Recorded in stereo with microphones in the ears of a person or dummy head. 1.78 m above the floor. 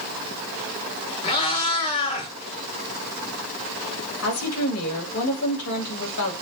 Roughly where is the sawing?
I don't hear sawing.